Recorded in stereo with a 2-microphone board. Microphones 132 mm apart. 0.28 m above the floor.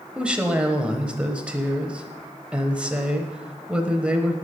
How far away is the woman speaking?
About 1.0 m.